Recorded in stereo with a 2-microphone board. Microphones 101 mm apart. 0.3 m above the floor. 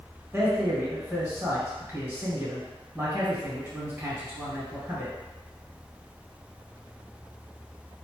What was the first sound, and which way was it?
A man speaking, 20° right (ahead or behind).